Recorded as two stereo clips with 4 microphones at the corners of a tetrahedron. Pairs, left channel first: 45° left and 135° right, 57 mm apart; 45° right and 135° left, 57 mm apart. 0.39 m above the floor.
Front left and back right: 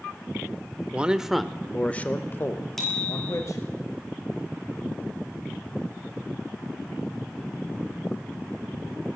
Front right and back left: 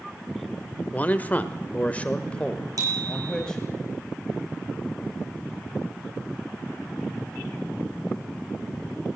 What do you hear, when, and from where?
0.9 s a man speaking: 85° right, 1.2 m; by 3.6 s 30° left, 2 m
2.8 s a bicycle bell: 130° left, 6.5 m